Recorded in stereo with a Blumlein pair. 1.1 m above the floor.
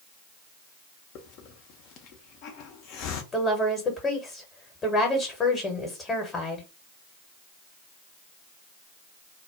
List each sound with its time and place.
1.1 s a hiss: 40° left, 0.6 m
3.3 s a woman speaking: 20° left, 0.9 m